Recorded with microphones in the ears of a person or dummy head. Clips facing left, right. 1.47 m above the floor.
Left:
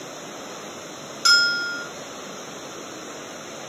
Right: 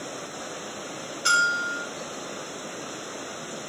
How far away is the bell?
About 1.2 m.